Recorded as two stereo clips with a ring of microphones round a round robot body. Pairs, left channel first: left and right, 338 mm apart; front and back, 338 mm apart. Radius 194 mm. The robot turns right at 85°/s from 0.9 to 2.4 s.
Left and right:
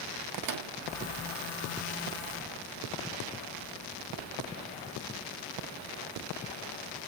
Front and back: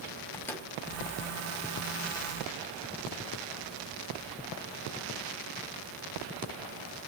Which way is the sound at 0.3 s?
85° right.